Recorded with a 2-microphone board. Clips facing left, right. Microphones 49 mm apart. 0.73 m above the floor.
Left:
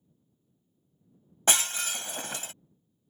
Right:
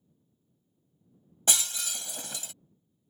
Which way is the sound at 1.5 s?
45° left (ahead or behind).